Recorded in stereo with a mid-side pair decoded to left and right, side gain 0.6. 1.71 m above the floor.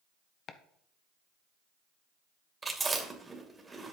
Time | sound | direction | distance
0.5 | chopping | 45° left | 0.9 m
2.6 | chewing | 15° right | 2.5 m